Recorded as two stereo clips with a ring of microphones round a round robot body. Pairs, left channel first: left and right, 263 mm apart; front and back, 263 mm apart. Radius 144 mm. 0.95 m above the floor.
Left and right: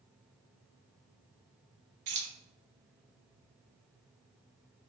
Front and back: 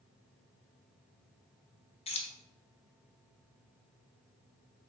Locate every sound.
2.1 s keys jangling: 70° right, 0.7 m